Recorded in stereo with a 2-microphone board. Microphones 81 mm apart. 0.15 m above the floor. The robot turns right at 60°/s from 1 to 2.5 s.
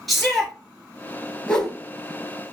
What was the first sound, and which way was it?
A shout, centre (ahead or behind).